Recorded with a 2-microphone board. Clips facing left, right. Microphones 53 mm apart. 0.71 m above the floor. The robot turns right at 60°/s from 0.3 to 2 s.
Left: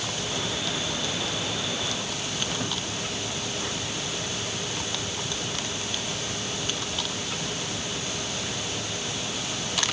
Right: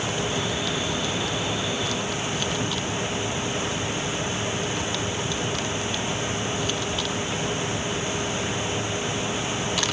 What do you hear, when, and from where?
Only background noise.